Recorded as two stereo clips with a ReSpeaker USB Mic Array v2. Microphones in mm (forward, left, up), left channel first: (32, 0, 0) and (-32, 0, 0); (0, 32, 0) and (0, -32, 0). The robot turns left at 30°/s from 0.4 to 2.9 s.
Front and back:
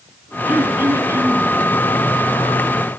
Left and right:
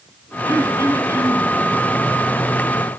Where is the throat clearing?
115° right, 2 m; by 1.5 s 145° right, 2 m.